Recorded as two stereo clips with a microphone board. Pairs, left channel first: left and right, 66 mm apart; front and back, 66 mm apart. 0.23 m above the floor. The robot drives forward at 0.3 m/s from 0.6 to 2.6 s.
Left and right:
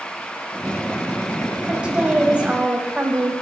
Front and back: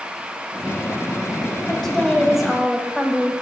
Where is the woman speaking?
60° right, 1.1 m; by 3.3 s 110° right, 1.1 m.